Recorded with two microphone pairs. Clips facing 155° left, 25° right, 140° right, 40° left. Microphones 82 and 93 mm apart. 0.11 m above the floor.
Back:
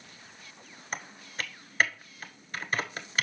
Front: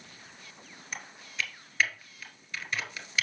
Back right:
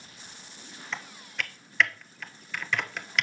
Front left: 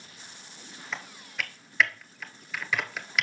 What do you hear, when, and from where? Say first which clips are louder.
0.9 s typing on a keyboard: back 1 dB, even; 130° left, 1.1 m